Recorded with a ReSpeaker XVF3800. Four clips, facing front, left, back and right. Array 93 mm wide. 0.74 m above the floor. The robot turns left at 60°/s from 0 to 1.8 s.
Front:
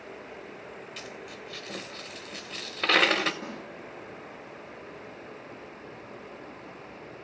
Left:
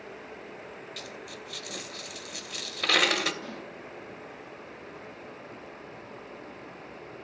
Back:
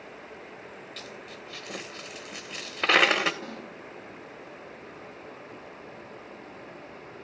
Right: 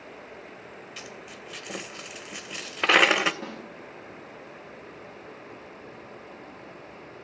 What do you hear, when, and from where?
1.0 s a dropped coin: 55° right, 0.5 m; by 3.3 s 110° right, 0.5 m
3.4 s a snare drum: 80° right, 4.5 m